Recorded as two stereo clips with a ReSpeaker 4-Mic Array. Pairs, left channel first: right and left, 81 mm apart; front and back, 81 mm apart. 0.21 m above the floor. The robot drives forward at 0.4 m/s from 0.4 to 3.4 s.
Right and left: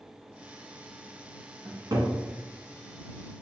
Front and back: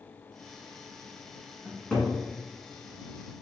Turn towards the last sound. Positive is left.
turn(degrees=105)